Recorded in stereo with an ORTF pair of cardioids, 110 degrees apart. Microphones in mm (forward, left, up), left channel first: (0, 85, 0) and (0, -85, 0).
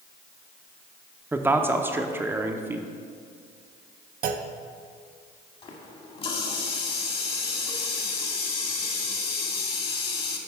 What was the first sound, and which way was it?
A man speaking, 10° right.